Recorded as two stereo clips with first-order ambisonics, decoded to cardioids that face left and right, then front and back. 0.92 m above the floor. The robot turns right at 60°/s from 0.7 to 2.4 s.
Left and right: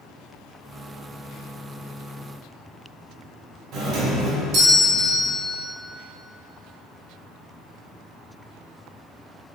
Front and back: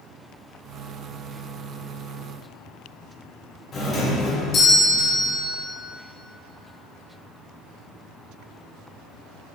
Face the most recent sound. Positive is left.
turn(degrees=-60)